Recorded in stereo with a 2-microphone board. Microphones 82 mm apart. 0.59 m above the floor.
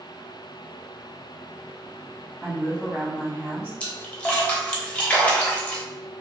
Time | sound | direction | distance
2.4 | a woman speaking | 5° left (ahead or behind) | 1.5 m
3.8 | a splash | 15° left (ahead or behind) | 0.6 m